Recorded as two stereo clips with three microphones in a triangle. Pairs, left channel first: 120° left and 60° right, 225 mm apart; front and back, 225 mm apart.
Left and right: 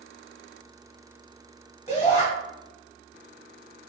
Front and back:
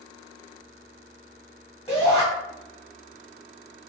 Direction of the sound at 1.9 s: 70° left.